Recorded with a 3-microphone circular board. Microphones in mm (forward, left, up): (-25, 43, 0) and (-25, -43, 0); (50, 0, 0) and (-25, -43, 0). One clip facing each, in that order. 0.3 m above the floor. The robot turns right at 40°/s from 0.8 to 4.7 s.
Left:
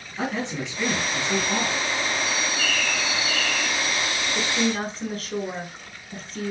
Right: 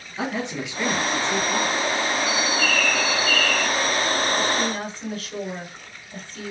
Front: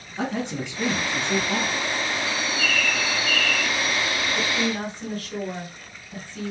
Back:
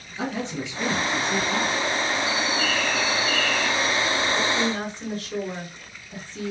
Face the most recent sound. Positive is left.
turn(degrees=140)